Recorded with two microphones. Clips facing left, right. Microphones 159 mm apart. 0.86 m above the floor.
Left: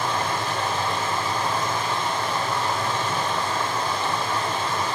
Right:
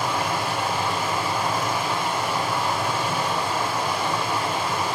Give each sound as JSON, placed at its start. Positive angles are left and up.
{"t": 0.0, "sound": "running water", "side_deg": -10, "distance_m": 1.4}